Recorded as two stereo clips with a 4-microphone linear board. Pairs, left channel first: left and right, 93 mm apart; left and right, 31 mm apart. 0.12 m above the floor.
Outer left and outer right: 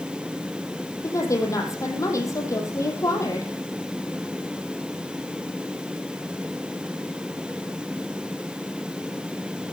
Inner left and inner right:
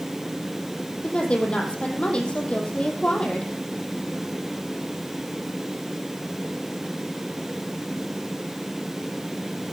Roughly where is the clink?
No clink in this recording.